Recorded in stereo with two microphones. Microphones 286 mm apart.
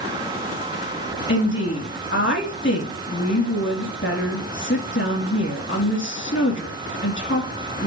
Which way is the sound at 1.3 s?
45° left (ahead or behind).